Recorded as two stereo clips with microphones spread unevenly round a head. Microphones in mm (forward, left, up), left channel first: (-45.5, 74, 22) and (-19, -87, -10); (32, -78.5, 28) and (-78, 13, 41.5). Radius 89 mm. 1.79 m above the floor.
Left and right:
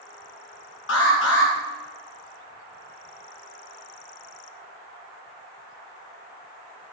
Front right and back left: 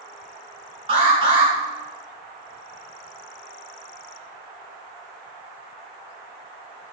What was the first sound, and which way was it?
An alarm, 80° left.